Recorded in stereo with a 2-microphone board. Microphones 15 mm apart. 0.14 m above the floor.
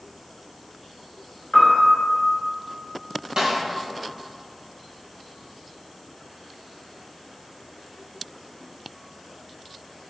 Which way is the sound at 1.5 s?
50° left (ahead or behind).